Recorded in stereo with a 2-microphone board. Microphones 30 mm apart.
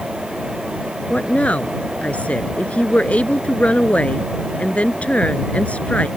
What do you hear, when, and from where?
1.1 s a woman speaking: 45° left (ahead or behind)